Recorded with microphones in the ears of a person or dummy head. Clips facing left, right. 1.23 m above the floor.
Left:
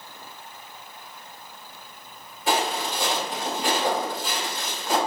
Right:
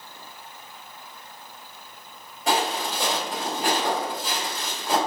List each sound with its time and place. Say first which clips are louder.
2.5 s footsteps: even; 50° right (ahead or behind), 1.7 m; by 5.0 s 20° right (ahead or behind), 2.0 m